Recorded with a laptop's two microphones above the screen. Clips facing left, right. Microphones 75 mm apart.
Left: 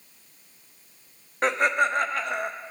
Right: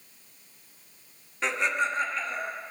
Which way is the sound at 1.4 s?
50° left (ahead or behind).